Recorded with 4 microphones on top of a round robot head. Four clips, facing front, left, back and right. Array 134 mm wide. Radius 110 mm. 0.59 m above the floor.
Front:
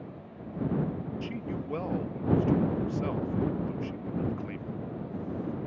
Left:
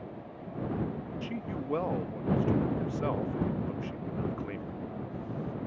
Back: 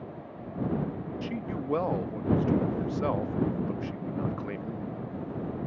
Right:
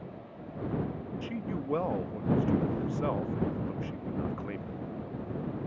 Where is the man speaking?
170° right.